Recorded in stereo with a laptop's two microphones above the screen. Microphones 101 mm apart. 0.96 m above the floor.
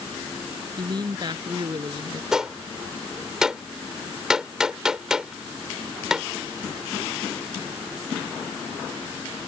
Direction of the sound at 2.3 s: 5° right (ahead or behind).